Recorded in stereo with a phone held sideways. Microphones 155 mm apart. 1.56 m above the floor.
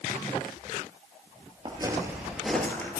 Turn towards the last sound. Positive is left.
turn(degrees=15)  # may be behind; listen again after turning